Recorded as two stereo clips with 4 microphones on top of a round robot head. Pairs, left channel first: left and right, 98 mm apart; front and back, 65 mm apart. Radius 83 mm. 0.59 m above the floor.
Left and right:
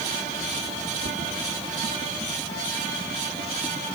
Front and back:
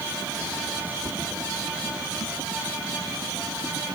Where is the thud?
105° right.